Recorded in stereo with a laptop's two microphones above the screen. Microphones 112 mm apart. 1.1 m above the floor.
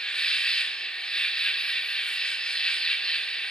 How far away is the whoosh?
I don't hear a whoosh.